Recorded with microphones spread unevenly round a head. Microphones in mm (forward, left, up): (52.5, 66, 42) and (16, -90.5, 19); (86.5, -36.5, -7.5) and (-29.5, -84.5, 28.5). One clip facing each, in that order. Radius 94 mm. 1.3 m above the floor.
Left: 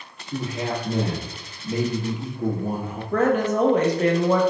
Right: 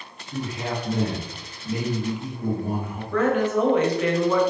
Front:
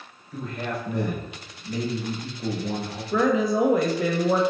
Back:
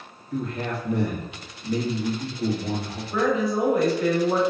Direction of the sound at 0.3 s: 145° left.